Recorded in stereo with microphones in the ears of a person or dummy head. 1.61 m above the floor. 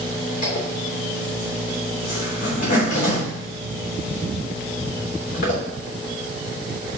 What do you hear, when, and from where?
0.4 s a zipper: 60° left (ahead or behind), 3 m